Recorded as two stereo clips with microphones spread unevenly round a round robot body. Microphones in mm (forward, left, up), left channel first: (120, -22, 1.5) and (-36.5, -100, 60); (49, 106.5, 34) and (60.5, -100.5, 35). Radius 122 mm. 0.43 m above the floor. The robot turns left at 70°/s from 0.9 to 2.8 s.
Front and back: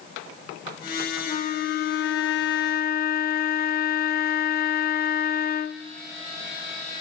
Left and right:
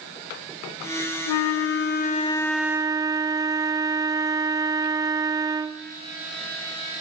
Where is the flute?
95° left, 0.6 m; by 5.8 s 15° right, 0.6 m.